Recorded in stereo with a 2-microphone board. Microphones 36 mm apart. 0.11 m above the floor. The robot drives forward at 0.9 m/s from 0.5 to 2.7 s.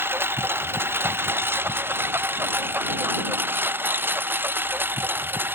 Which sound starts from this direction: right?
A lawn mower, at 0.0 s.